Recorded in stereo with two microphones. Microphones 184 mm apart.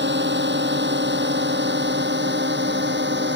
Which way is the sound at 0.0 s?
75° right (ahead or behind).